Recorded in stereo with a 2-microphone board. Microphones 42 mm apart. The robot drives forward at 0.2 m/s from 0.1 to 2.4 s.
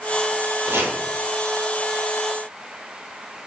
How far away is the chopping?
About 3 m.